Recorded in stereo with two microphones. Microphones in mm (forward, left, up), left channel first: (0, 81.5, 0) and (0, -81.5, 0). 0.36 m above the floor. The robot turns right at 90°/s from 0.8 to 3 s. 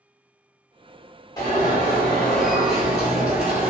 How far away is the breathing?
I don't hear breathing.